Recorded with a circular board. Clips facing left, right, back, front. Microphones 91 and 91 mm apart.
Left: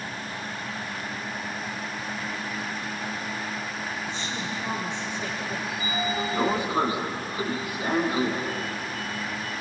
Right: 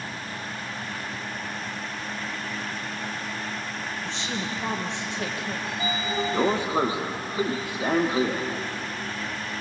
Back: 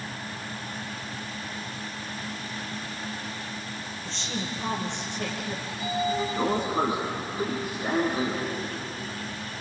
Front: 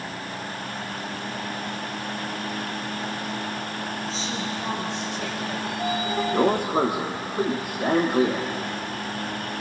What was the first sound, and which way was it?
A woman speaking, 85° right.